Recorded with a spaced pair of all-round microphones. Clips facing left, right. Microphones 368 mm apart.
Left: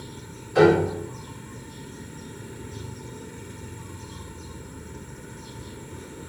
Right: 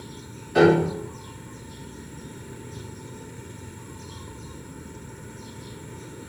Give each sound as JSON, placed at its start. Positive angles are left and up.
{"t": 0.6, "sound": "a piano", "side_deg": -85, "distance_m": 2.0}